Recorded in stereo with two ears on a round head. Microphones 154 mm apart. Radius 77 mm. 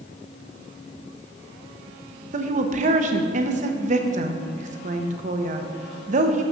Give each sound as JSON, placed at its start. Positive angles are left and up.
{"t": 2.3, "sound": "a woman speaking", "side_deg": -45, "distance_m": 0.8}